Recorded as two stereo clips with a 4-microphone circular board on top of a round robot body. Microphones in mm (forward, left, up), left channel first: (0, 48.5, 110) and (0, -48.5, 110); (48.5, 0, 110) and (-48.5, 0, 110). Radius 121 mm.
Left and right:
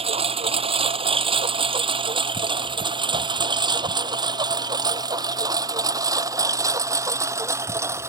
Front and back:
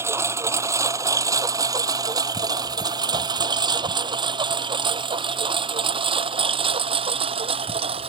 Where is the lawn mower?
115° right; by 8.1 s 155° right.